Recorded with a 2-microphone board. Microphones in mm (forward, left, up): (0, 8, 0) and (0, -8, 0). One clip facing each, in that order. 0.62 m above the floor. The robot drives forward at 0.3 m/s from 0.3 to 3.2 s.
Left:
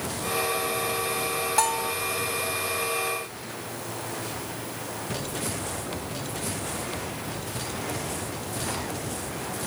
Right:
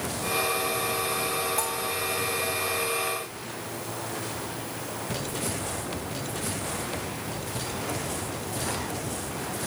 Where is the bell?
50° left (ahead or behind); by 1.9 s 45° left (ahead or behind).